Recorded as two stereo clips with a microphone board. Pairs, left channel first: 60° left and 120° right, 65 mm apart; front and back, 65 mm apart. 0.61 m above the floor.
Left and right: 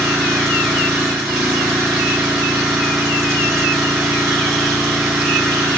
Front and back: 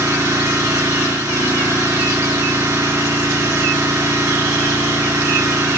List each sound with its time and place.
0.0 s an engine running: 155° left, 3.5 m